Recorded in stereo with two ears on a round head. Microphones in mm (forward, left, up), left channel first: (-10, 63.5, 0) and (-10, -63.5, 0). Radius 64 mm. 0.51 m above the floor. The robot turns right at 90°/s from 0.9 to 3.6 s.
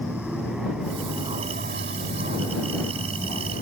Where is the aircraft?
175° right; by 3.6 s 65° left.